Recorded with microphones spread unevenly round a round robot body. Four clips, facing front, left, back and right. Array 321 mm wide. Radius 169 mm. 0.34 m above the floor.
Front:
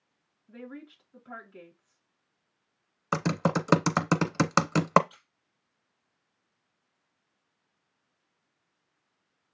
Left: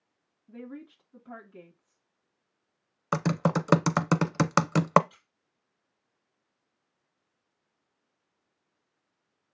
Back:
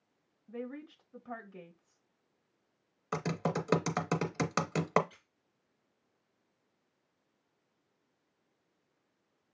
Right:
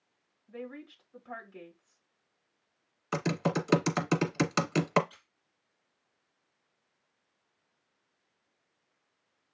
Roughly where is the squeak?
Behind left.